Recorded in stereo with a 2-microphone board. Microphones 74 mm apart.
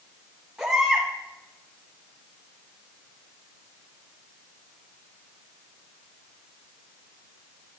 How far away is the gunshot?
I don't hear a gunshot.